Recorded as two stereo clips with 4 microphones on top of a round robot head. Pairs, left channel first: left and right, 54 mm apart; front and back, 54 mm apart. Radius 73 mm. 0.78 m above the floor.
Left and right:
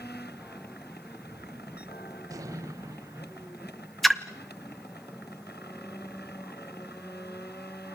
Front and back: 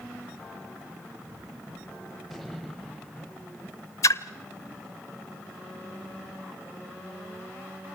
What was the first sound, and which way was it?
A gunshot, 90° right.